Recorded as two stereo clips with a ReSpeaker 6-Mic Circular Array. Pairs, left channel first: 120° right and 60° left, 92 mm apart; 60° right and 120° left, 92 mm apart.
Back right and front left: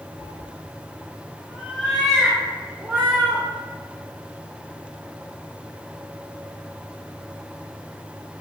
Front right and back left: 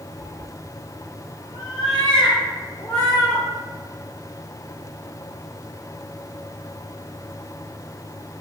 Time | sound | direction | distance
0.2 | a cat meowing | 100° right | 0.6 m